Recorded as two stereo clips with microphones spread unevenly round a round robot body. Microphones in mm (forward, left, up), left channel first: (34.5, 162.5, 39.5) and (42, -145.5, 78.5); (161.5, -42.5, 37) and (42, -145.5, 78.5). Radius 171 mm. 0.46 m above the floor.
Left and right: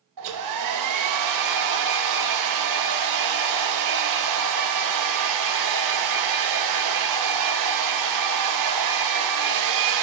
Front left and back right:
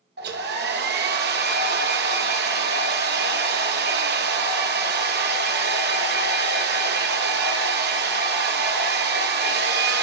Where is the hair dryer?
125° right, 0.6 m.